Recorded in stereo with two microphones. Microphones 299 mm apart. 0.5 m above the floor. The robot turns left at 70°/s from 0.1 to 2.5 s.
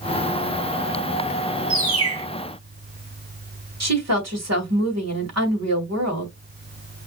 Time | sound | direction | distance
1.7 | a bird | 60° right | 1.6 m
3.8 | a woman speaking | 60° right (ahead or behind) | 2 m